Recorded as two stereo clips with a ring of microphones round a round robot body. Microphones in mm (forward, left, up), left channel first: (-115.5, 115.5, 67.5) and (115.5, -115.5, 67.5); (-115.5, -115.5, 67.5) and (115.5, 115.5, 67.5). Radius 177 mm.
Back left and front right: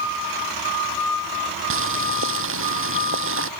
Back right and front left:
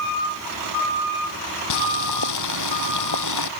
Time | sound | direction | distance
1.7 | boiling | 100° right | ?